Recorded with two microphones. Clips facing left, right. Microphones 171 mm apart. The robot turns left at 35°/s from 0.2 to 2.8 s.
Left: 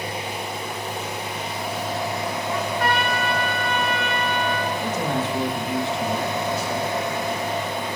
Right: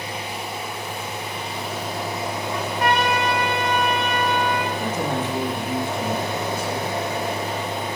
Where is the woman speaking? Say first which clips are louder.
Even; 55° right (ahead or behind), 3 m.